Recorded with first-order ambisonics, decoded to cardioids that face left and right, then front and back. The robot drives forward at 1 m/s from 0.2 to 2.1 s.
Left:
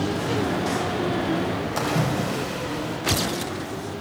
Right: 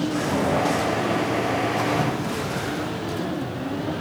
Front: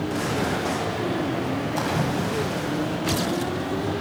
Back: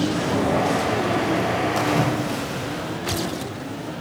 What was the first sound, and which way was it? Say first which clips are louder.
A splash: right 1 dB, back 4 dB; 125° left.